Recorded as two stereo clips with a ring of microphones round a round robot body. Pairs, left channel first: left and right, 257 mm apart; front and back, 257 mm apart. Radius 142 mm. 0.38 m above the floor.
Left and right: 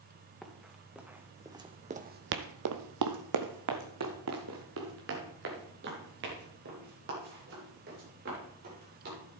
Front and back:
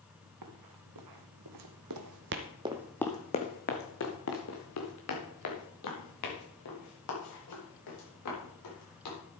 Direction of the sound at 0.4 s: Straight behind.